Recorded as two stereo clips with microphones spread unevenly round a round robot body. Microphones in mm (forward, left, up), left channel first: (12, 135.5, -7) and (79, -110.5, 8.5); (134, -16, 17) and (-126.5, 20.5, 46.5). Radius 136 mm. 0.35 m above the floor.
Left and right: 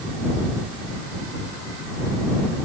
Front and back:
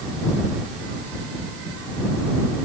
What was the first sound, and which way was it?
Only background noise.